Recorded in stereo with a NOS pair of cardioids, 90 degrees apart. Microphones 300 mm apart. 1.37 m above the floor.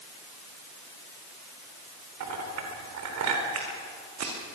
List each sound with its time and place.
2.2 s a clink: 65° right, 4 m
3.5 s footsteps: 60° right, 5.5 m